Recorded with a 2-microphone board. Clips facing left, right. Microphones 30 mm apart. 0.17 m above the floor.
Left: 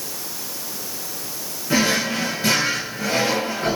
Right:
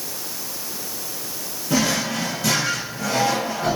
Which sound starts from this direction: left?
A drawer, at 1.7 s.